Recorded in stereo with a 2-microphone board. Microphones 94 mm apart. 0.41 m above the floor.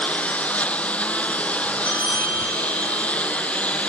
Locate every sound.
0.0 s a lawn mower: 15° left (ahead or behind)
1.9 s a bell: 65° left (ahead or behind)